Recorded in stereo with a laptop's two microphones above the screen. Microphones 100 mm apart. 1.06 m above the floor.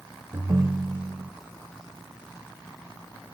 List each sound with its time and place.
0.3 s a ringtone: 50° right (ahead or behind), 0.7 m